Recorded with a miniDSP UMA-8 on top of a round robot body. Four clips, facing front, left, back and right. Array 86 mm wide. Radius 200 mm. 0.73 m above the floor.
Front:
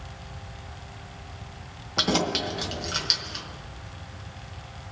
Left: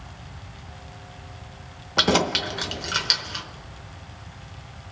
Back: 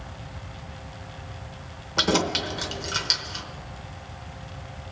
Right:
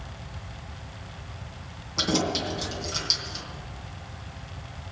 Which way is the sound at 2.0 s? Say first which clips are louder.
Left 5 dB, back 2 dB; 95° left.